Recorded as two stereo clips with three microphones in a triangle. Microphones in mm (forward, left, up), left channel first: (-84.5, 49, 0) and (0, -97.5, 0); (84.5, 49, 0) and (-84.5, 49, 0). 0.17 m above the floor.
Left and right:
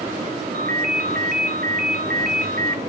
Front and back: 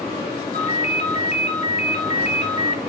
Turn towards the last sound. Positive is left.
turn(degrees=-45)